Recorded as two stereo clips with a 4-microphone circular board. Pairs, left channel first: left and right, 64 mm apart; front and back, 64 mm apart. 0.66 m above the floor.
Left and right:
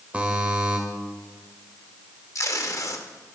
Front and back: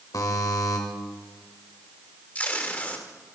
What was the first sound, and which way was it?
A buzzer, 20° right.